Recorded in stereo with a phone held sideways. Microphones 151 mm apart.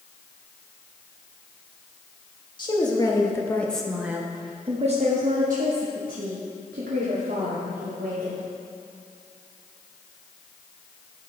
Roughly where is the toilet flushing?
No toilet flushing in this recording.